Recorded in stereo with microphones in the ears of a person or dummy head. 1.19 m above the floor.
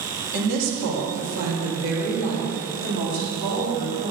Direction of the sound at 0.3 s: 60° right (ahead or behind).